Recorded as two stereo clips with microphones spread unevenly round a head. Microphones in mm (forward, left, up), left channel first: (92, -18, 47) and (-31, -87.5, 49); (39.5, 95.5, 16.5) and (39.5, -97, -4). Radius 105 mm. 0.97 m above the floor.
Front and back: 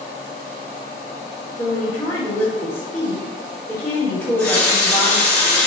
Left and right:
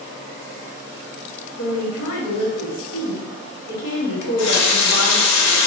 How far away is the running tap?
About 0.5 m.